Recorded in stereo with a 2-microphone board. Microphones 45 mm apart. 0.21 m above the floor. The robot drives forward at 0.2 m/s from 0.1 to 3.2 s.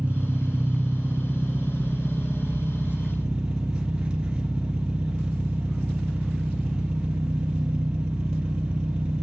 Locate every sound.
0.0 s an engine running: 25° right (ahead or behind), 1.5 m; by 9.2 s 20° right (ahead or behind), 2.0 m